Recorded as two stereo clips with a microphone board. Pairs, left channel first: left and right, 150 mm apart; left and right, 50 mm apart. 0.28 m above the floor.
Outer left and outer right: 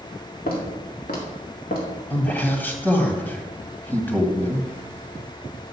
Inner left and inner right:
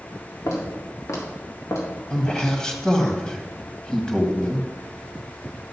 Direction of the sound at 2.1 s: 10° left (ahead or behind).